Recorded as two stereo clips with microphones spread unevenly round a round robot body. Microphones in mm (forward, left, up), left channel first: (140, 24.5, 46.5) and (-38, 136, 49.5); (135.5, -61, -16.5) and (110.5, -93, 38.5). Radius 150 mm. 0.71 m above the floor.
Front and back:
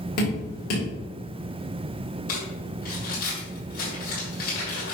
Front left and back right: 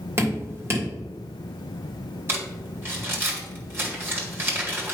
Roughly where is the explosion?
No explosion in this recording.